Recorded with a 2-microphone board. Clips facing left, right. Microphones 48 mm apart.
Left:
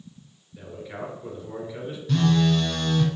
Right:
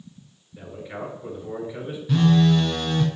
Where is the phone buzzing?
10° right (ahead or behind), 1.2 m.